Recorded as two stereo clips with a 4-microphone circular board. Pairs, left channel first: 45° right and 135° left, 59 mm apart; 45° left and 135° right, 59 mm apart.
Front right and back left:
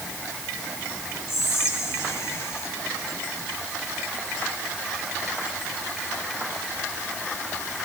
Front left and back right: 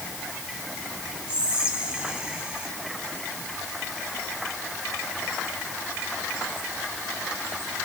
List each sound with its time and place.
1.3 s whispering: 70° right, 2 m